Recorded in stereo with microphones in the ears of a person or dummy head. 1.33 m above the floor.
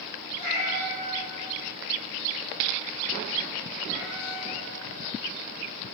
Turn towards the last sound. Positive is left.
turn(degrees=0)  # may be behind; listen again after turning